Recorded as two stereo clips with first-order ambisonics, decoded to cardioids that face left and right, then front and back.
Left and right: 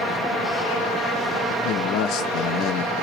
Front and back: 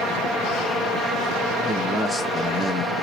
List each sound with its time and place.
1.6 s a man speaking: 85° left, 0.6 m